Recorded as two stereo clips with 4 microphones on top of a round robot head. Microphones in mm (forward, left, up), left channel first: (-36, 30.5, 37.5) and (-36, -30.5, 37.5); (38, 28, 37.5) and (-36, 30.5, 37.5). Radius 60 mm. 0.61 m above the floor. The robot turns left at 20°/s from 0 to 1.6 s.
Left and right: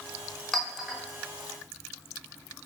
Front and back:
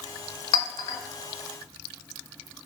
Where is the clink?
5° left, 0.6 m; by 1.0 s 5° right, 0.6 m.